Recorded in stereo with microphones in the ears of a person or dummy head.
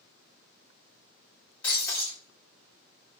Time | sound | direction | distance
1.6 | breaking glass | 10° left (ahead or behind) | 1.6 m